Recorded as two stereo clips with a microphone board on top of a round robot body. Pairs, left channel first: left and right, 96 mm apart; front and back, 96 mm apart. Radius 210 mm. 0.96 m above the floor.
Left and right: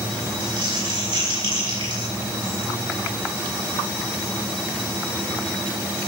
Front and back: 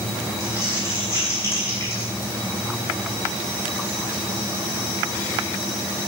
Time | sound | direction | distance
0.4 | crumpling | 65° right | 6.5 m